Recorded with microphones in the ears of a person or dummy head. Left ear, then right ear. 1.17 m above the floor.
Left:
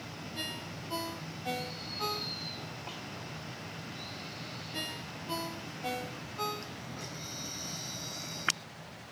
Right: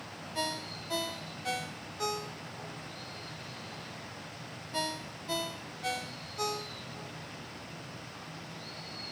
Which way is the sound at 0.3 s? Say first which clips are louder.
Right 5 dB; 70° right (ahead or behind).